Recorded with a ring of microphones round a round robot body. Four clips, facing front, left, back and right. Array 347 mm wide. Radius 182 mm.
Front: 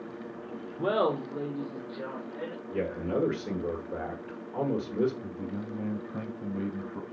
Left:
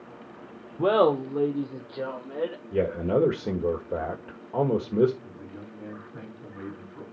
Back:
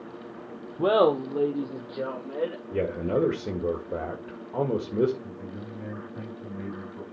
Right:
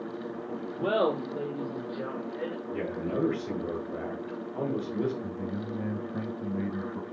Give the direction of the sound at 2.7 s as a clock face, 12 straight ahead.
8 o'clock.